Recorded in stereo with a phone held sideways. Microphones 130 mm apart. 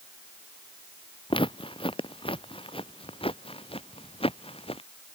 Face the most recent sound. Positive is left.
turn(degrees=45)  # may be behind; listen again after turning